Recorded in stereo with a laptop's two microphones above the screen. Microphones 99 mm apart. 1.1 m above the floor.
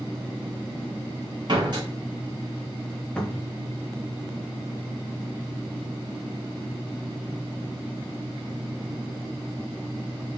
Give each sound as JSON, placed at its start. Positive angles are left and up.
{"t": 1.5, "sound": "a door slam", "side_deg": -50, "distance_m": 1.1}
{"t": 3.2, "sound": "a cupboard door", "side_deg": 10, "distance_m": 0.6}